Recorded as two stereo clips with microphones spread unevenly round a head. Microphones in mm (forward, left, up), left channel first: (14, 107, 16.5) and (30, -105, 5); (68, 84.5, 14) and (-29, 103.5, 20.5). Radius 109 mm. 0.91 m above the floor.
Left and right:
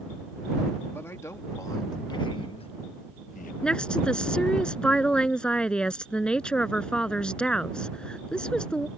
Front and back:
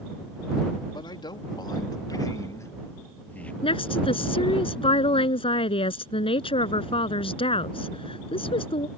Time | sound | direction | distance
0.9 | a man speaking | 15° left | ?
3.6 | a woman speaking | 10° left | ?